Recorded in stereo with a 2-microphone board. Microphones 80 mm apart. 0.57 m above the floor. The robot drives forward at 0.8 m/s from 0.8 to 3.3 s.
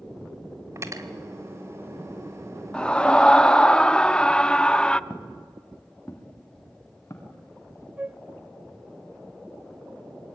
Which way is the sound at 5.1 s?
15° left (ahead or behind).